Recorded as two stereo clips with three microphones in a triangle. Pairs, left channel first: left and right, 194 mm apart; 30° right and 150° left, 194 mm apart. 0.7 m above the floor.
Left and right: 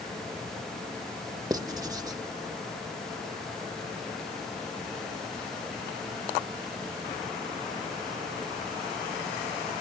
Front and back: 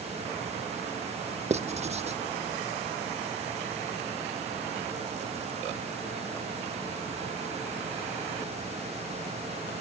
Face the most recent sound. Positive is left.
turn(degrees=-155)